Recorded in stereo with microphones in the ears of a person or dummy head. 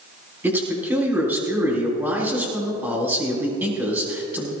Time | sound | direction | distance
0.4 | a man speaking | 10° right (ahead or behind) | 4.5 m